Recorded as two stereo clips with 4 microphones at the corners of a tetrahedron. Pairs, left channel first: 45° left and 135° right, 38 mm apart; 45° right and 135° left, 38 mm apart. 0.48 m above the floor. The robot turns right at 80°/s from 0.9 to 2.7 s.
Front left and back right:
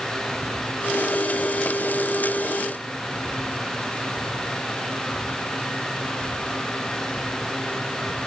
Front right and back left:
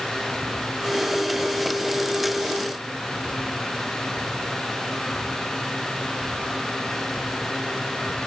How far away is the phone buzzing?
No phone buzzing in this recording.